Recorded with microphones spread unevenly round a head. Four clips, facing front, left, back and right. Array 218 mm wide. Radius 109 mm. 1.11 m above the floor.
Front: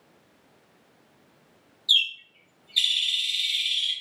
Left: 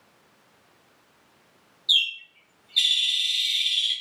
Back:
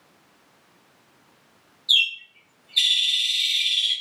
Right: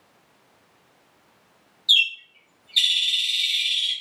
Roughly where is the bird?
Ahead right.